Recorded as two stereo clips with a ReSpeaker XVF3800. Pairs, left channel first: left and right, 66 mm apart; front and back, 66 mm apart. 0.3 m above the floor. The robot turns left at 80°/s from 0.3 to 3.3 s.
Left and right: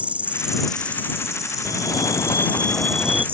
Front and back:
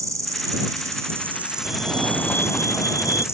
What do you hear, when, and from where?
0.0 s an insect: 155° right; by 3.4 s 35° right
1.6 s a fire alarm: 120° left; by 3.2 s 10° right